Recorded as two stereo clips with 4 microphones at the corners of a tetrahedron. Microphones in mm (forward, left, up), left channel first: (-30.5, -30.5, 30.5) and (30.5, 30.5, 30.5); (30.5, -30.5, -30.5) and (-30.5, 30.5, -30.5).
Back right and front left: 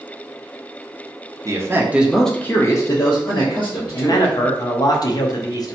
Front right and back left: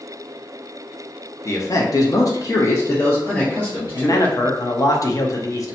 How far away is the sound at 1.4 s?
About 0.6 m.